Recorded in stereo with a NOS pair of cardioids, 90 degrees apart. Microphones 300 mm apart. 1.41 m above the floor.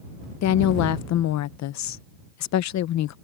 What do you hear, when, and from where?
0.4 s a woman speaking: 70° left